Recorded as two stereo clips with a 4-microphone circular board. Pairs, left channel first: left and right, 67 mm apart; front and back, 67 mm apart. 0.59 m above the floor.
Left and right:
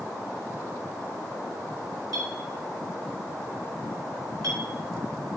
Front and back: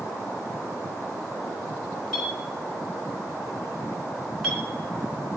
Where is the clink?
95° right, 3.5 m.